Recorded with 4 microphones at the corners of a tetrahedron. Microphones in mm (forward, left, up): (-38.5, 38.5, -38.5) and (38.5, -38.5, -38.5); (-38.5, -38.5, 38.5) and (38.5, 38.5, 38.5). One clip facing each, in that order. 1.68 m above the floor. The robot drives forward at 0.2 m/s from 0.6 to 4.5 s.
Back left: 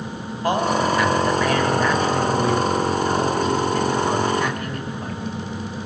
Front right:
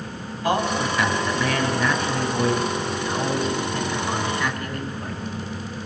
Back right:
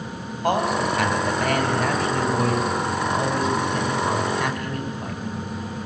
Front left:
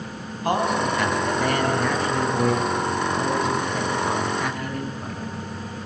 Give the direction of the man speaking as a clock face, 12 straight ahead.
6 o'clock.